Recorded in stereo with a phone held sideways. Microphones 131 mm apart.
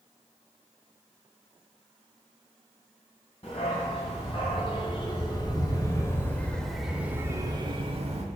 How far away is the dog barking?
About 2.5 m.